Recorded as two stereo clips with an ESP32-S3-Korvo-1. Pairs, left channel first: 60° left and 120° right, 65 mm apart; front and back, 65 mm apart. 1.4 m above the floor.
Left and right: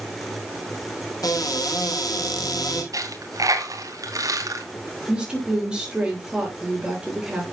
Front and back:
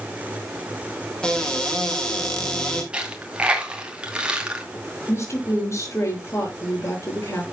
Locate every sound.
1.2 s a cupboard door: 75° left, 3.5 m
2.9 s a dropped coin: 110° right, 2.5 m
5.1 s a woman speaking: 45° right, 6.5 m